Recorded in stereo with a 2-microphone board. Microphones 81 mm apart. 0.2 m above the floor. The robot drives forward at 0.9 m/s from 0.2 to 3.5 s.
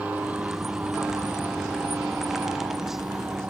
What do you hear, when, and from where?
0.0 s an aircraft: 20° right (ahead or behind)